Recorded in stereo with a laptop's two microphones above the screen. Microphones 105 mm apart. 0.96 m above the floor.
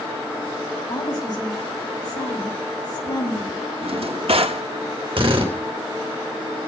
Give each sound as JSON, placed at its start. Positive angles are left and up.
{"t": 0.9, "sound": "a woman speaking", "side_deg": 40, "distance_m": 7.0}
{"t": 3.8, "sound": "a drawer", "side_deg": -65, "distance_m": 1.1}
{"t": 5.2, "sound": "a drill", "side_deg": -55, "distance_m": 3.0}